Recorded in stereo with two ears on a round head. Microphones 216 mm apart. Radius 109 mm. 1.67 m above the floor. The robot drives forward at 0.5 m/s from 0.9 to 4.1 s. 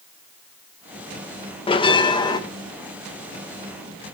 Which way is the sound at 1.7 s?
25° left (ahead or behind).